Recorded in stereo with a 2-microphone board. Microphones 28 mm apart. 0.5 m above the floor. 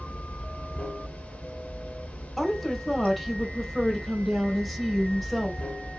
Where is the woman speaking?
Centre (ahead or behind), 1.8 m.